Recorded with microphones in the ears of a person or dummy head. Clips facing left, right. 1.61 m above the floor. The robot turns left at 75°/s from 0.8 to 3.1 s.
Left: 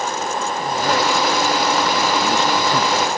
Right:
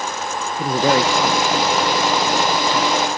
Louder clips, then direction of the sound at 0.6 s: Right 5 dB; 95° right.